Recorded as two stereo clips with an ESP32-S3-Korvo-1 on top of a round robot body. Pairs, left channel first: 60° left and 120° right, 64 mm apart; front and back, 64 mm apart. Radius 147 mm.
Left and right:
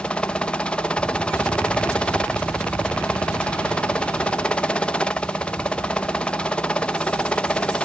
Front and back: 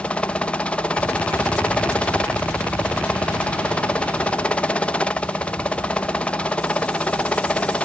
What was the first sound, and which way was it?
A helicopter, 25° left.